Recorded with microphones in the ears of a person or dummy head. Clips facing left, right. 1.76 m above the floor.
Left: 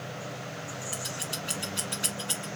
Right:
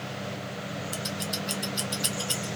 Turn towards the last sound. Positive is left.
turn(degrees=20)  # may be behind; listen again after turning